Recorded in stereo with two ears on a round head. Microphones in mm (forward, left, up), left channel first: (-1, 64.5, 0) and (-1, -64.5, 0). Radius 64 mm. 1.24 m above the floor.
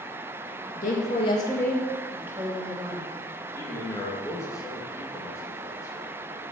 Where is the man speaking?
20° left (ahead or behind), 2.0 m.